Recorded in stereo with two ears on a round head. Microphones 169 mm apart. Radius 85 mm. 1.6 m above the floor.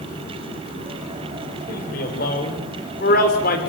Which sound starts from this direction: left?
A man speaking, at 1.7 s.